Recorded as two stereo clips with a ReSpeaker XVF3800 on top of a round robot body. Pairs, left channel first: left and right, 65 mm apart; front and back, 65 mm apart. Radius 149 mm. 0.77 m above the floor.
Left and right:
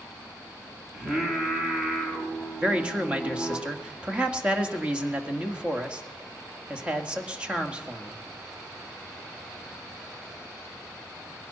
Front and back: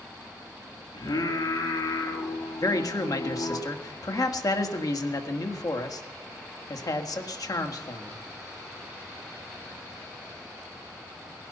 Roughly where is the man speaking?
Ahead.